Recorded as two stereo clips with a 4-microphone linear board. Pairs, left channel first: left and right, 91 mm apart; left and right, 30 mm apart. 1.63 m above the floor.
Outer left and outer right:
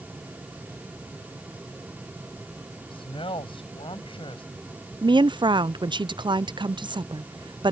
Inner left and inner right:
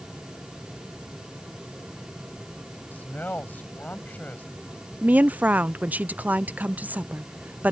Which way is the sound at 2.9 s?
85° left.